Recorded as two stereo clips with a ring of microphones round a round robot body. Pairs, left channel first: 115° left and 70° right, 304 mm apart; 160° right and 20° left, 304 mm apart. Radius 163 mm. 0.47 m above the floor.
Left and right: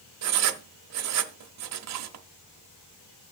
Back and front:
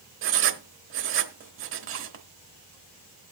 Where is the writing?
30° right, 0.9 m.